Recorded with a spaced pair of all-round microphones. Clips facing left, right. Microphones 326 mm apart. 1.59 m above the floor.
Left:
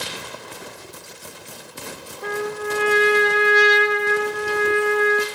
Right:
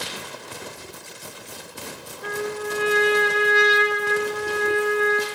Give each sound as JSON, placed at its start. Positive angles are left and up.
{"t": 2.2, "sound": "a trumpet", "side_deg": 80, "distance_m": 3.0}